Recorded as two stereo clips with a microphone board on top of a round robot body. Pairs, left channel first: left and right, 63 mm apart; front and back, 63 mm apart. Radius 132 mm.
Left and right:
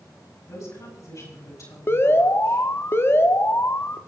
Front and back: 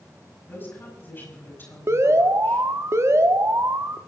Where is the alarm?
140° left, 1.1 m.